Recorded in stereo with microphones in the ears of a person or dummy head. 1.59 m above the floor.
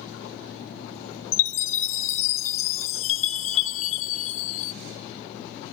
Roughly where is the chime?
Left.